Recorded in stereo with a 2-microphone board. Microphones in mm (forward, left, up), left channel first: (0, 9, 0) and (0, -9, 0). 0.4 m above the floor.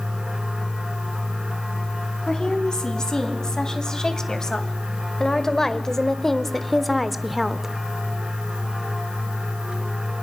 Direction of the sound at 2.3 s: 35° left (ahead or behind).